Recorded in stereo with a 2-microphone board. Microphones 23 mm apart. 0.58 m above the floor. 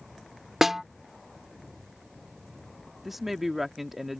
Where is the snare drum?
10° right (ahead or behind).